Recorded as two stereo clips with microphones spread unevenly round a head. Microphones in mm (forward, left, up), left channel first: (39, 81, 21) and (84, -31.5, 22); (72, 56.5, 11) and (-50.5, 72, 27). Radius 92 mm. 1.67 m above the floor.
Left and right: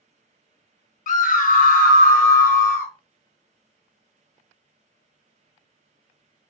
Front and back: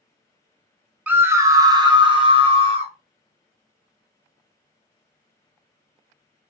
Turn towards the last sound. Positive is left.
turn(degrees=135)